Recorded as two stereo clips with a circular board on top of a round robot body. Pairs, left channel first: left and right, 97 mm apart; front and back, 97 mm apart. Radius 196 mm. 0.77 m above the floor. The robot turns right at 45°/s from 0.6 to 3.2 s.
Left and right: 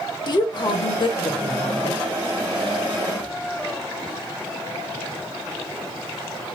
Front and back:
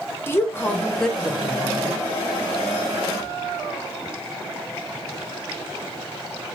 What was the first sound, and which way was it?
A woman speaking, 60° left.